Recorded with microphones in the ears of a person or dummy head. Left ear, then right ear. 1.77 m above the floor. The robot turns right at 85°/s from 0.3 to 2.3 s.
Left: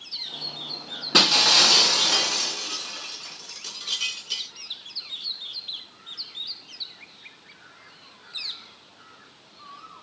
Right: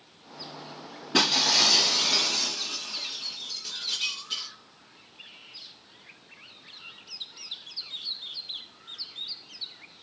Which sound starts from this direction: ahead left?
Breaking glass, at 1.1 s.